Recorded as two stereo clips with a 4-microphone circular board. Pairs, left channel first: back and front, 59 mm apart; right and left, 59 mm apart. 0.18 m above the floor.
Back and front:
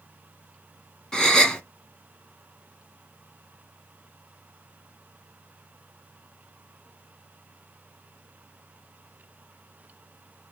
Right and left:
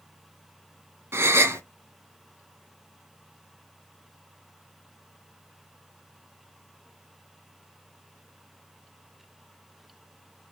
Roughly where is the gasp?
Left.